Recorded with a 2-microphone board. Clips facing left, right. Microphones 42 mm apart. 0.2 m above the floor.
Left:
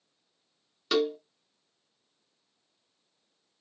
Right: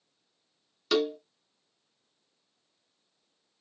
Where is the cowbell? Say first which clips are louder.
Even; 10° left (ahead or behind), 0.9 m.